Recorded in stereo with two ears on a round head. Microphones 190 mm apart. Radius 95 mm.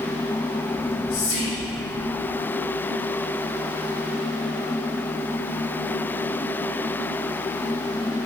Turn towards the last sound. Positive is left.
turn(degrees=70)  # may be behind; listen again after turning